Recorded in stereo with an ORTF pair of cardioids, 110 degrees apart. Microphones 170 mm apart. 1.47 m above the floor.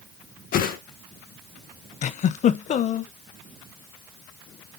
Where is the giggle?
45° left, 0.8 m.